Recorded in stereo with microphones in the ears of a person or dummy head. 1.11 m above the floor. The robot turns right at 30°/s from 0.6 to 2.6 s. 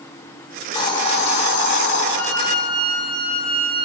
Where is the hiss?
30° left, 1.5 m; by 2.0 s 70° left, 1.5 m.